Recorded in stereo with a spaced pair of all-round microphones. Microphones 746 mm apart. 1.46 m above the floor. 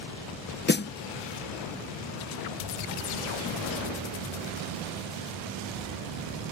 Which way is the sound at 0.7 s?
15° left (ahead or behind).